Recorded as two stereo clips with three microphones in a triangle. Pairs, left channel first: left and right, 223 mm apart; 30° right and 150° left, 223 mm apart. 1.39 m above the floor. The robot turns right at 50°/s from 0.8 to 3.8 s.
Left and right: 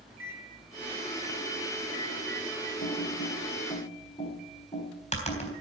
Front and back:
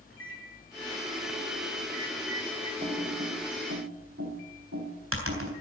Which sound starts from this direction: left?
Typing on a keyboard, at 2.8 s.